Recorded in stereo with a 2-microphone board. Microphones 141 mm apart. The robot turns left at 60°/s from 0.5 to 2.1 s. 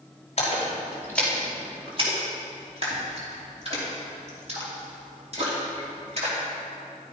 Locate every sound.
0.4 s a splash: 50° left (ahead or behind), 4 m; by 6.4 s 45° right (ahead or behind), 4 m